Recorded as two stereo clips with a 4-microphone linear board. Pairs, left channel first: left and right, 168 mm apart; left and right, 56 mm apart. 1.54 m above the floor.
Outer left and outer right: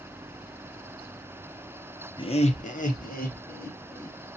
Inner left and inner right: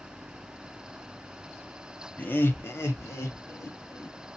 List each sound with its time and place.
2.2 s laughter: 30° left (ahead or behind), 0.7 m; by 4.2 s 60° left (ahead or behind), 2.5 m